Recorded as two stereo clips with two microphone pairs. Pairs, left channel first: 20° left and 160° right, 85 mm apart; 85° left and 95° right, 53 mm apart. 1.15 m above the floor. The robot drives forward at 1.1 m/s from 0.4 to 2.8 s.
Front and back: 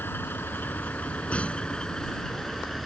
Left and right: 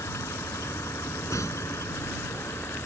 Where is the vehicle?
85° left; by 2.9 s 110° left.